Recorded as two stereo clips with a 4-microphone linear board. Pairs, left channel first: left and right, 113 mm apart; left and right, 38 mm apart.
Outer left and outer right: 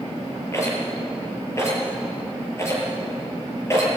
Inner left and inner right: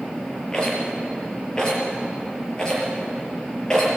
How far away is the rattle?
About 6.5 m.